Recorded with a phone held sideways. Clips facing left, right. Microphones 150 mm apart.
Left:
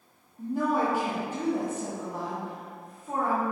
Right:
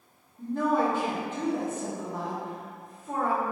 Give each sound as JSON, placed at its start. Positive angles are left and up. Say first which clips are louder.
{"t": 0.4, "sound": "a woman speaking", "louder": "right 1 dB", "side_deg": 10, "distance_m": 0.6}